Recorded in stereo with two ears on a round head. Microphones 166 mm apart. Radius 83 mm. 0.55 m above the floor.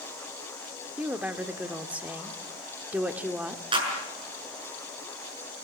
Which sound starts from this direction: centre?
A woman speaking, at 1.0 s.